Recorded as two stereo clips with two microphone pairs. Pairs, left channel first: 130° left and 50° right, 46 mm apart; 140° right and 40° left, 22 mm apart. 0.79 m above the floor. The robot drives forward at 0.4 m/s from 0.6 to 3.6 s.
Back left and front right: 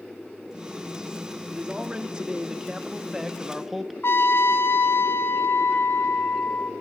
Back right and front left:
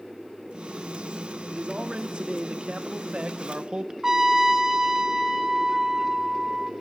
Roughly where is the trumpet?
Left.